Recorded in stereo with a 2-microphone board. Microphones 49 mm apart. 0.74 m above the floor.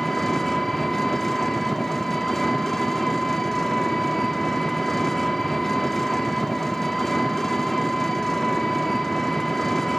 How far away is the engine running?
About 1.2 m.